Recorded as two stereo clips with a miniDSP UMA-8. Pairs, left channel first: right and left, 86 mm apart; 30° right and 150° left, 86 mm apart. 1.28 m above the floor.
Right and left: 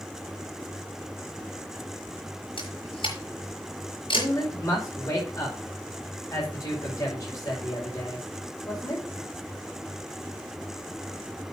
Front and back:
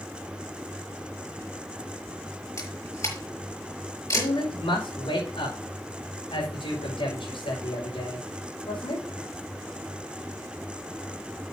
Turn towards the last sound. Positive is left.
turn(degrees=-40)